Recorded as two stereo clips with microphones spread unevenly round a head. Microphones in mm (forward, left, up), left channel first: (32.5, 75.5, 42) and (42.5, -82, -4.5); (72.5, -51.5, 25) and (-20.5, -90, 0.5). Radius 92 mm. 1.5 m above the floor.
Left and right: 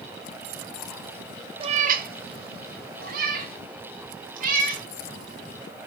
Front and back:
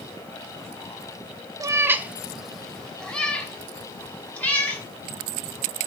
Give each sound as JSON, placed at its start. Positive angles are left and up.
{"t": 1.6, "sound": "a cat meowing", "azimuth_deg": -145, "distance_m": 0.7}